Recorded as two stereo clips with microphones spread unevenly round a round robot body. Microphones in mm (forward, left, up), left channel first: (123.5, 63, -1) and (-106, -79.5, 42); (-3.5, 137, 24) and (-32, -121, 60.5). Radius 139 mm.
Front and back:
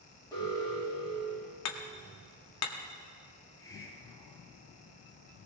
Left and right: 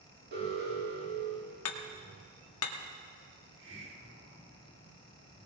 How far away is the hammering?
About 1.5 m.